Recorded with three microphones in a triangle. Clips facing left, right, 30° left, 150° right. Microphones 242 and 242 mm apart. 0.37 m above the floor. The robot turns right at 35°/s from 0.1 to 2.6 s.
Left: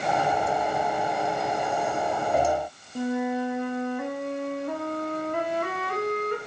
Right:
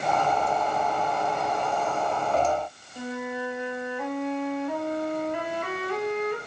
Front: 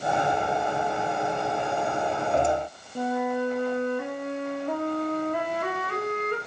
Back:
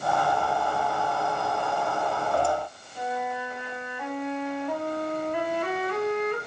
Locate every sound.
3.0 s a flute: 60° left, 0.6 m